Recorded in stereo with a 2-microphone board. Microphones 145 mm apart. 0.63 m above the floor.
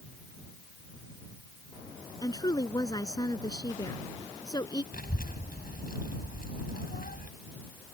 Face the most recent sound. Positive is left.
turn(degrees=80)